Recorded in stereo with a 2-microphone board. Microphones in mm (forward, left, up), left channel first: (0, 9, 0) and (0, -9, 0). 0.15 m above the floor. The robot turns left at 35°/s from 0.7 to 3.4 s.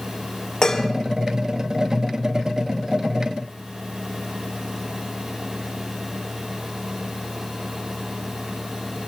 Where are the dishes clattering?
30° left (ahead or behind), 2 m; by 0.9 s 25° left (ahead or behind), 2 m.